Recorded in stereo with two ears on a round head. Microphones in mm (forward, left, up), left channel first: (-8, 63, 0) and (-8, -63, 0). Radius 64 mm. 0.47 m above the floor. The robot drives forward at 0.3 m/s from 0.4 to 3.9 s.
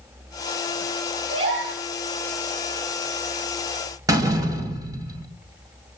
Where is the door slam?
25° right (ahead or behind), 2.5 m.